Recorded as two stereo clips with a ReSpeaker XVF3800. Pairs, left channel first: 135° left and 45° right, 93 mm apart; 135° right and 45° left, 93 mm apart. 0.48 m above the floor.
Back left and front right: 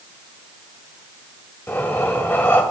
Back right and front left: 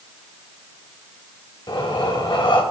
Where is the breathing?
160° right, 1.7 m.